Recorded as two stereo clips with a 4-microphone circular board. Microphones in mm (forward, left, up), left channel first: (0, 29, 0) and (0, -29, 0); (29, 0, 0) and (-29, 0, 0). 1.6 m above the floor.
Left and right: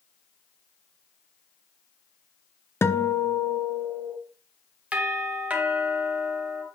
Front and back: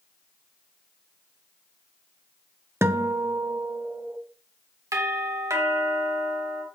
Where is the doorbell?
155° right, 2.5 m.